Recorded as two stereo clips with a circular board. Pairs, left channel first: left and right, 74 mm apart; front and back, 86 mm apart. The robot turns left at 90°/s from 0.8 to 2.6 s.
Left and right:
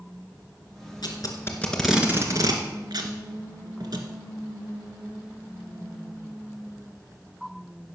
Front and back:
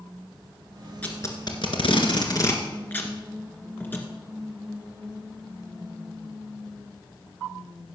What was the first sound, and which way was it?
Tape being pulled, 75° left.